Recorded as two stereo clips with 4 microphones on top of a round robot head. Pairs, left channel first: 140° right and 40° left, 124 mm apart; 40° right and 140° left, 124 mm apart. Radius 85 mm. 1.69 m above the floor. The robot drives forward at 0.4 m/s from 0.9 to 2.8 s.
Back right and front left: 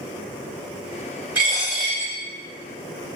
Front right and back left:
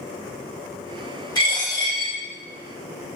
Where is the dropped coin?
10° right, 1.6 m.